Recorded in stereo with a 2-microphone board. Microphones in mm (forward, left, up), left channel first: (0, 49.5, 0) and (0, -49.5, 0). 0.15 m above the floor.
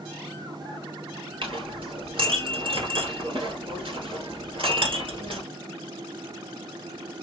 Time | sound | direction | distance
1.4 | a clink | 60° right (ahead or behind) | 2 m